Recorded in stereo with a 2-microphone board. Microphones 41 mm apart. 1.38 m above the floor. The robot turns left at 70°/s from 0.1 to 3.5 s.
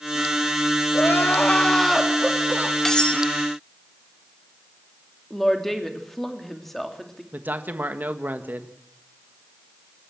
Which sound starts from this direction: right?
A man speaking, at 7.3 s.